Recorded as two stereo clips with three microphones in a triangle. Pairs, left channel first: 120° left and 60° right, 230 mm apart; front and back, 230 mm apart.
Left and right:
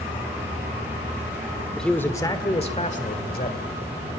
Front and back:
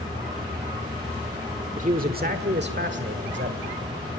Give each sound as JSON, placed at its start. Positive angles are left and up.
{"t": 1.8, "sound": "a man speaking", "azimuth_deg": -155, "distance_m": 1.2}